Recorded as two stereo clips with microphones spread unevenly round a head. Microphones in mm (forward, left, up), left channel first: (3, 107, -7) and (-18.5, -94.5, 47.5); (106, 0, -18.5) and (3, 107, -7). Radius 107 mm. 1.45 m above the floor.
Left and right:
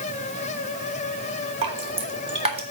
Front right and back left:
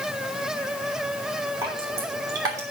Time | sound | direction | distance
1.6 | dripping | 155° right | 1.9 m